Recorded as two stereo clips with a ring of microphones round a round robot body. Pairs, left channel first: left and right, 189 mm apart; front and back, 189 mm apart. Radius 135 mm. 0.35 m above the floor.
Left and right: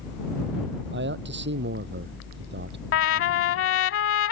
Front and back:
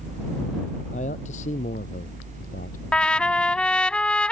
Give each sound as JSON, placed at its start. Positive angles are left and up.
{"t": 0.9, "sound": "a man speaking", "azimuth_deg": -65}
{"t": 2.9, "sound": "a trumpet", "azimuth_deg": 85}